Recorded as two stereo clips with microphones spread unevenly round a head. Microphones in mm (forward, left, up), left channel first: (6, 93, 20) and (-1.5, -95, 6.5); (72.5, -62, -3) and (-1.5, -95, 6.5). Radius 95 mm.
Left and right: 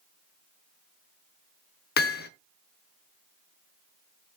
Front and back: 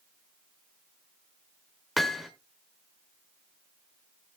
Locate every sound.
2.0 s hammering: 120° left, 1.1 m